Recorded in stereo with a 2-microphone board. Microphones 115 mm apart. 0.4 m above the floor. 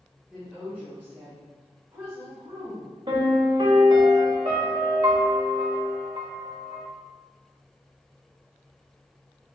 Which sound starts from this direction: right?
A piano, at 3.1 s.